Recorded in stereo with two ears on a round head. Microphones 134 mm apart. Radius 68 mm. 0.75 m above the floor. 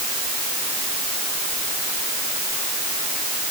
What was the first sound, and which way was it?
Only background noise.